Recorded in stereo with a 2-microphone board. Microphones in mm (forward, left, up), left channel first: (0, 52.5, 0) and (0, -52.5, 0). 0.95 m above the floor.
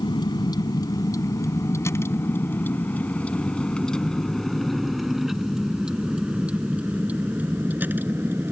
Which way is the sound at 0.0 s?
40° left (ahead or behind).